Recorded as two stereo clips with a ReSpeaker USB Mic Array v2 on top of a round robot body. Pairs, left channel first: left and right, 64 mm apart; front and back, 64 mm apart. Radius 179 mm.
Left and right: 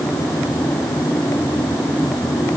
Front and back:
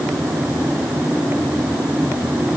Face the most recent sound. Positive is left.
No sound to turn to.